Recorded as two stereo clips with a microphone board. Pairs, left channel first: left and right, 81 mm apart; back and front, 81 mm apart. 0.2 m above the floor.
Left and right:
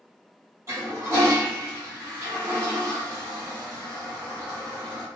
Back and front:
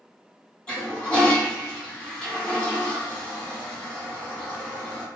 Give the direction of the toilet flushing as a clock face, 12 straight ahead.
4 o'clock.